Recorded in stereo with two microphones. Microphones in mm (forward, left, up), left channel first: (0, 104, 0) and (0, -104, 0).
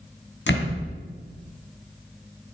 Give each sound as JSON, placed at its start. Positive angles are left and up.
{"t": 0.5, "sound": "a door slam", "side_deg": 60, "distance_m": 3.0}